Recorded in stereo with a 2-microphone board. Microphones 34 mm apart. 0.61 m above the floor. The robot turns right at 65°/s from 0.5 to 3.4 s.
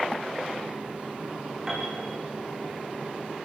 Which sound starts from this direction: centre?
A piano, at 1.7 s.